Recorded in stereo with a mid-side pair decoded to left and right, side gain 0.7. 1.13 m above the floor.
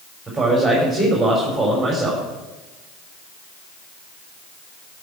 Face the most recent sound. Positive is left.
turn(degrees=-10)